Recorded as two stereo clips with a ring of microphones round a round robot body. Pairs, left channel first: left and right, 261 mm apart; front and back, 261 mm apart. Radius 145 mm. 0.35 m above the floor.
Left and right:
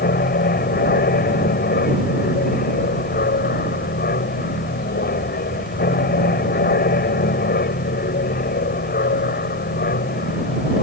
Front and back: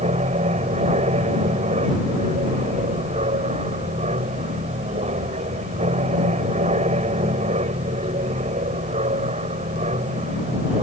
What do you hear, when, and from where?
0.0 s an aircraft: 125° left